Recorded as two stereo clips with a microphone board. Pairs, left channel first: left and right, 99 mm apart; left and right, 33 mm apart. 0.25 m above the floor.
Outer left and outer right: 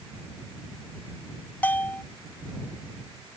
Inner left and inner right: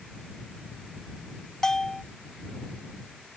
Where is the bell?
15° left (ahead or behind).